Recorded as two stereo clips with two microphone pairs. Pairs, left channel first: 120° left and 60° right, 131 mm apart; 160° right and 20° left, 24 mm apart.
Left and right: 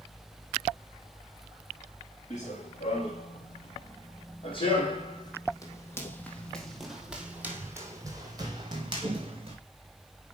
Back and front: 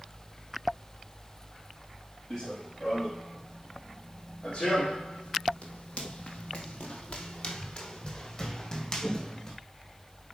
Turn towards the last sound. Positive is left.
turn(degrees=-100)